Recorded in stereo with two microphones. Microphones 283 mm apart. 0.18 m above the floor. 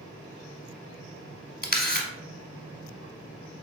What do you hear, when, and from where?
1.6 s a camera shutter: 30° left (ahead or behind), 0.8 m